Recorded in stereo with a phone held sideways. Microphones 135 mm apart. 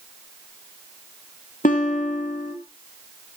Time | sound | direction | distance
1.6 | a guitar | 80° left | 3 m